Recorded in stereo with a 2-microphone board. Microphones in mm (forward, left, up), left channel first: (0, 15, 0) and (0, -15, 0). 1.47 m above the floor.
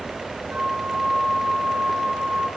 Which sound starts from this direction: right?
A flute, at 0.5 s.